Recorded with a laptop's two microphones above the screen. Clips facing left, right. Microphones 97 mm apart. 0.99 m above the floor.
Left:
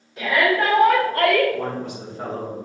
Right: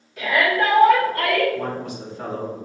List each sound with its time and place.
0.2 s a shout: 25° left (ahead or behind), 1.6 m; by 1.4 s 50° left (ahead or behind), 1.4 m
1.5 s a man speaking: 25° left (ahead or behind), 2.0 m